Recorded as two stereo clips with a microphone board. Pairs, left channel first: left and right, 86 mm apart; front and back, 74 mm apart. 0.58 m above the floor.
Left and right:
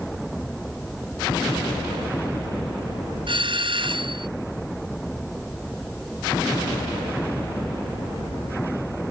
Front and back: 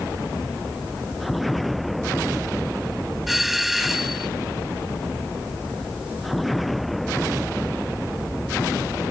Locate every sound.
3.3 s a doorbell: 95° right